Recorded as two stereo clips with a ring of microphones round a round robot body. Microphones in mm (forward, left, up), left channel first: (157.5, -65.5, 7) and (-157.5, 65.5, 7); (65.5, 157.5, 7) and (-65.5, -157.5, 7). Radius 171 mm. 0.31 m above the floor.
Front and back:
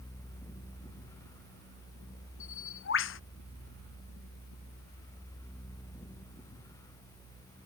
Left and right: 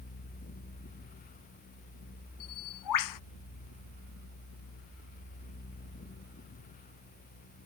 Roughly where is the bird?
Ahead left.